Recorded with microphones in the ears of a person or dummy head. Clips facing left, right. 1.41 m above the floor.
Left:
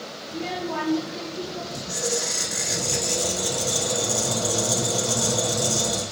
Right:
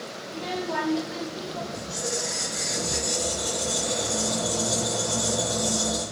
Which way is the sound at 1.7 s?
40° left (ahead or behind).